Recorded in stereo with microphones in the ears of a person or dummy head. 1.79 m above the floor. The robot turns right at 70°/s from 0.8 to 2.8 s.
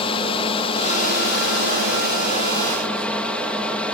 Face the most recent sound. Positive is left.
turn(degrees=170)